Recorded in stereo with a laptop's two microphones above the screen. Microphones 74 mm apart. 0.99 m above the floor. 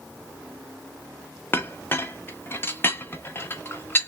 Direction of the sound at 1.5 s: 30° left (ahead or behind).